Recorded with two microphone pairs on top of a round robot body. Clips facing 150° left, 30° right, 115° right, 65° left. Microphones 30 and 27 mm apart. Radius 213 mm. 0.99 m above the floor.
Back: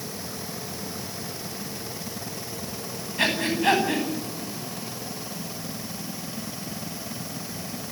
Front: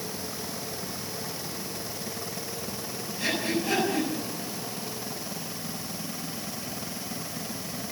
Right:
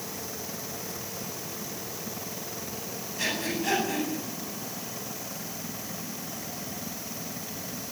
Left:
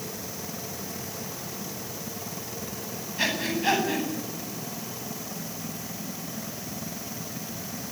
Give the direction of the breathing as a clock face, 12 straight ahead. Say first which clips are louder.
Back 5 dB, left 3 dB; 8 o'clock.